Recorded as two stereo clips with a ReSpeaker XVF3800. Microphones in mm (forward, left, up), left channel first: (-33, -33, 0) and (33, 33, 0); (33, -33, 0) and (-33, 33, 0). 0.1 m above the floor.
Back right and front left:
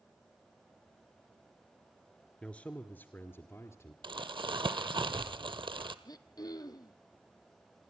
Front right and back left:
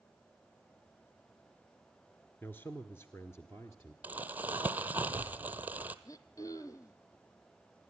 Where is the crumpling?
65° left, 0.8 m.